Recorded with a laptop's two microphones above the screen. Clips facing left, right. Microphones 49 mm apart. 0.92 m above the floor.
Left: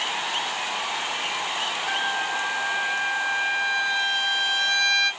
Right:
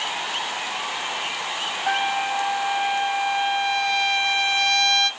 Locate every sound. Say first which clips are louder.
1.9 s a trumpet: right 5 dB; 65° right (ahead or behind), 1.4 m